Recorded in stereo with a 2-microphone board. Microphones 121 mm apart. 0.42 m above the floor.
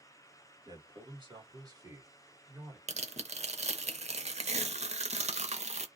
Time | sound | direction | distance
0.7 | a man speaking | 40° right (ahead or behind) | 1.3 m
2.9 | tearing paper | 65° right (ahead or behind) | 0.6 m